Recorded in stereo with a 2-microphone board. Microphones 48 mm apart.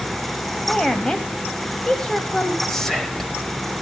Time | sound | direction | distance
0.7 | a woman speaking | 15° left (ahead or behind) | 1.2 m
2.7 | whispering | 10° left (ahead or behind) | 0.9 m